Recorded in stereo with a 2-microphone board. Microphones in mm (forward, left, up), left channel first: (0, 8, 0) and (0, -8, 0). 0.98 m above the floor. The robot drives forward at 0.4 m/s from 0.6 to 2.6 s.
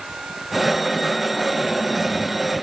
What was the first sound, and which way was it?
Only background noise.